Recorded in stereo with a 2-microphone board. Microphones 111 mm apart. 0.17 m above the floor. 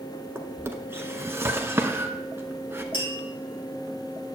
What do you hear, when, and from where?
0.3 s a drawer: 25° right (ahead or behind), 0.7 m
2.9 s tapping: 50° left (ahead or behind), 2.5 m